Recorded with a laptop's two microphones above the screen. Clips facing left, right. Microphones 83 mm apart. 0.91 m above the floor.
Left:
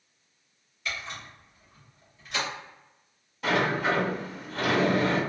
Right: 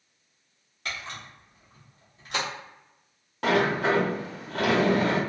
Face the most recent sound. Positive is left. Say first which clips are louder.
# right 2 dB
turn(degrees=-65)  # may be behind; listen again after turning